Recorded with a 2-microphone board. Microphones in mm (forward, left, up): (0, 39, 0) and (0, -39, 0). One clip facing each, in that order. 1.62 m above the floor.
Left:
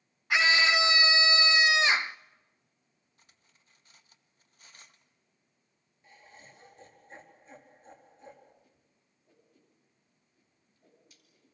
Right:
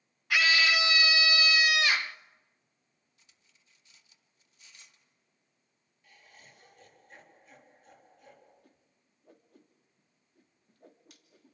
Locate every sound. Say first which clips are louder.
0.3 s a scream: left 1 dB; 25° left (ahead or behind), 0.5 m
3.2 s cutlery clinking: left 3 dB; 45° left (ahead or behind), 1.2 m
6.0 s laughter: left 4 dB; 30° left (ahead or behind), 4 m
8.6 s a whoosh: right 3 dB; 65° right (ahead or behind), 2.5 m